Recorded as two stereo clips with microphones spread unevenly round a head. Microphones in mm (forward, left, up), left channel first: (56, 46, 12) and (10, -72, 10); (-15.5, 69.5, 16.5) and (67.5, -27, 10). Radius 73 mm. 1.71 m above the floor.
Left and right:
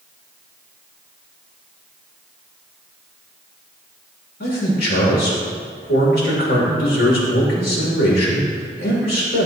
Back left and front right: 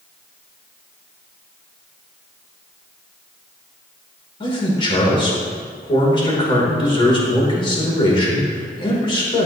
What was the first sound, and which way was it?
A man speaking, 80° left.